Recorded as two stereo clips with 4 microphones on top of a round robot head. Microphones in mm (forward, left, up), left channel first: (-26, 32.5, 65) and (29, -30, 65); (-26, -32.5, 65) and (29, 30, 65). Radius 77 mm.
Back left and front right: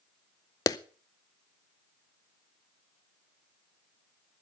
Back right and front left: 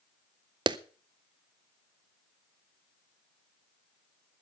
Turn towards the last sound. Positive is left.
turn(degrees=85)